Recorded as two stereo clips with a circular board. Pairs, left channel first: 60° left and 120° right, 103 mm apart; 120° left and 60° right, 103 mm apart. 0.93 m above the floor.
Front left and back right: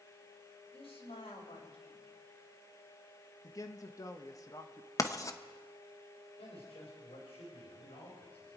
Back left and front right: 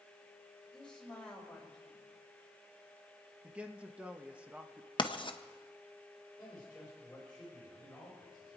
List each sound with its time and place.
0.7 s a woman speaking: 35° left, 4 m
3.4 s a man speaking: 15° left, 1.2 m
5.0 s writing: 105° left, 0.8 m
6.4 s a man speaking: 40° left, 4 m